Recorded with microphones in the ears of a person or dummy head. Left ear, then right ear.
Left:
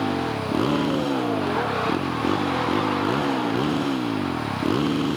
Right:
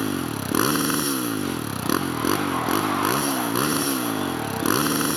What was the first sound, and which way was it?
A motorcycle, 65° right (ahead or behind).